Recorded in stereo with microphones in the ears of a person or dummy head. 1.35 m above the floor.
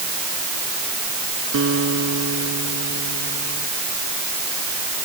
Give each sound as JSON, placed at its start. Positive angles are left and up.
{"t": 1.5, "sound": "a guitar", "side_deg": -75}